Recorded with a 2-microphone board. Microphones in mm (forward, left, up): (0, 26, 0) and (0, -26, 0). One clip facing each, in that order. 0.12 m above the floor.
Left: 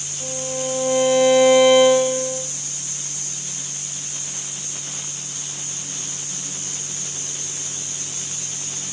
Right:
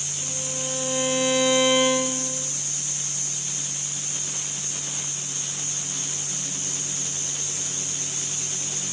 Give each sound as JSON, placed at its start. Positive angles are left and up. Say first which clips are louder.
{"t": 0.2, "sound": "a violin", "louder": "left 8 dB", "side_deg": 40, "distance_m": 5.0}